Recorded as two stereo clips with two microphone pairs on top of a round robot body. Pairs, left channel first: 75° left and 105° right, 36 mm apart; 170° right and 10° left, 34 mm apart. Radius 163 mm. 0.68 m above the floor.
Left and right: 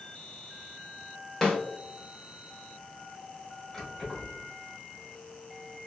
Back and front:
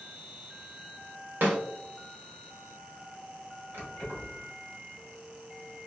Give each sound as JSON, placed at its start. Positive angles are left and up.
{"t": 1.4, "sound": "a snare drum", "azimuth_deg": -10, "distance_m": 1.4}
{"t": 3.7, "sound": "keys jangling", "azimuth_deg": -5, "distance_m": 1.9}